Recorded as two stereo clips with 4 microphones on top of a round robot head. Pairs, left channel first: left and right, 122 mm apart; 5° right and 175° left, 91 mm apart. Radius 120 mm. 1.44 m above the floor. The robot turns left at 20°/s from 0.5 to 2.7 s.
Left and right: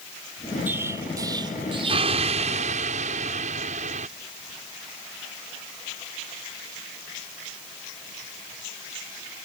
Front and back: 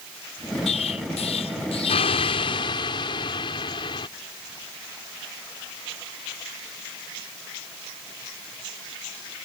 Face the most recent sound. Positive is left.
turn(degrees=-55)